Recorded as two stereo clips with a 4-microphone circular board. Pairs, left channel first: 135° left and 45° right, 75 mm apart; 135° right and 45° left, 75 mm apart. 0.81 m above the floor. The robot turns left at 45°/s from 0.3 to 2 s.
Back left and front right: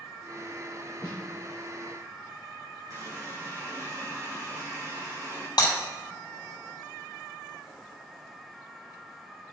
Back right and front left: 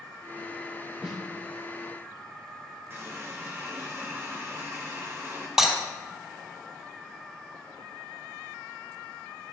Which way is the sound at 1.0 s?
130° left.